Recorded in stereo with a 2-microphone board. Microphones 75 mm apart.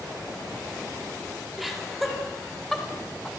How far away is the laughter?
About 4 m.